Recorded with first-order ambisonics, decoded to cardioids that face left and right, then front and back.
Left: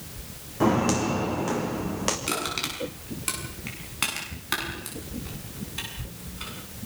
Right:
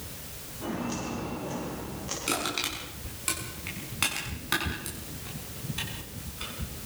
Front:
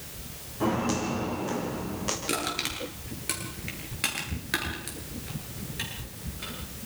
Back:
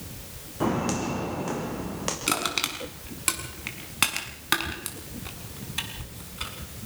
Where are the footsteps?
110° left, 3.5 m; by 2.2 s 115° left, 4.5 m.